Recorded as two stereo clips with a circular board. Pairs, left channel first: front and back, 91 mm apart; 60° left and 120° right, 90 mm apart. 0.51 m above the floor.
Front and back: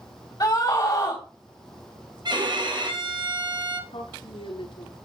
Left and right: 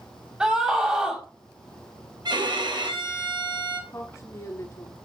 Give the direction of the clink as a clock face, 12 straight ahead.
No clink in this recording.